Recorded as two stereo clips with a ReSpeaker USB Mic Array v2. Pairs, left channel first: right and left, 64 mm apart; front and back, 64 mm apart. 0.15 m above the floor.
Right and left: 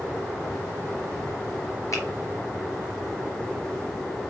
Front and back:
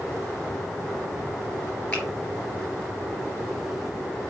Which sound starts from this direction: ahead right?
A finger snap, at 1.9 s.